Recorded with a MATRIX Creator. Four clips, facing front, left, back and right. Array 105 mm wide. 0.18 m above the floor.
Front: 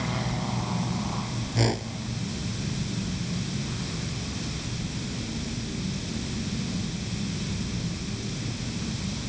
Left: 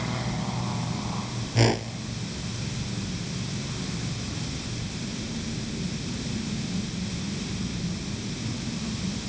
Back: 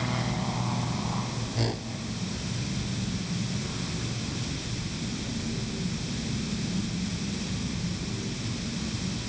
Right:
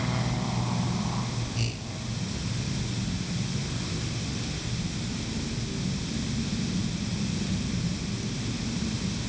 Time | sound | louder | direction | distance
1.6 | a whoosh | left 11 dB, front 6 dB | 75° left | ?